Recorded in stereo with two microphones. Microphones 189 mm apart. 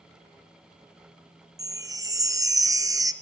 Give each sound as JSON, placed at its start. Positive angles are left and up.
{"t": 1.6, "sound": "a chime", "side_deg": -15, "distance_m": 0.5}